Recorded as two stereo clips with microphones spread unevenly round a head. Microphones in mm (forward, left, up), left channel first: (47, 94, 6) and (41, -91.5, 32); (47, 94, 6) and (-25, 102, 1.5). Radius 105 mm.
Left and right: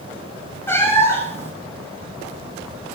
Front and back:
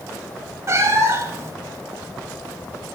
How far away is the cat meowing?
About 1.2 m.